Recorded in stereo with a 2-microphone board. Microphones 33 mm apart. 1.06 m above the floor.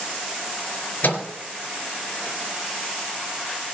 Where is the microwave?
65° left (ahead or behind), 3 m.